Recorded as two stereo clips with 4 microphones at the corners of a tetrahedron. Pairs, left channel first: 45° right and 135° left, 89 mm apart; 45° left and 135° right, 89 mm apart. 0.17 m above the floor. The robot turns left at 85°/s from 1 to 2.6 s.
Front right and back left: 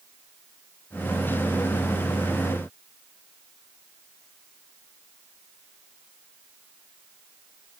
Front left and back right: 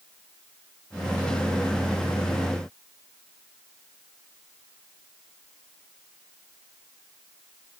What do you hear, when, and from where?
Only background noise.